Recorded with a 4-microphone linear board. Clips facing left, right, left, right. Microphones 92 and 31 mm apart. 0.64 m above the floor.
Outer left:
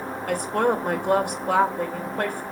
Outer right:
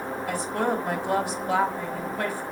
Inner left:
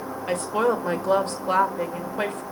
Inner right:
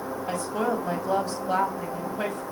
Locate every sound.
0.3 s a woman speaking: 55° left (ahead or behind), 2.5 m